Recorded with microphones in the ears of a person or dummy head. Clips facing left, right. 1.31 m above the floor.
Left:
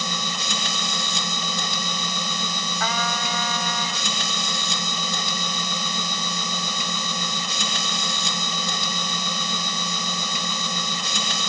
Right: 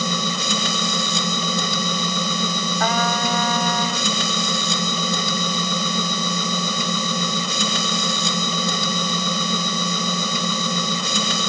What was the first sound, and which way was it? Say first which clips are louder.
A machine running: right 7 dB; 80° right.